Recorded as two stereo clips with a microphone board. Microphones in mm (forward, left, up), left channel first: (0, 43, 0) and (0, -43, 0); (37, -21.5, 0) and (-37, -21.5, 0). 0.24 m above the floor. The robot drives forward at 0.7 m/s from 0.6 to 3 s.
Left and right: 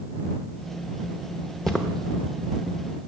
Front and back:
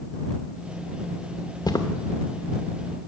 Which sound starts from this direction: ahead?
Footsteps, at 1.6 s.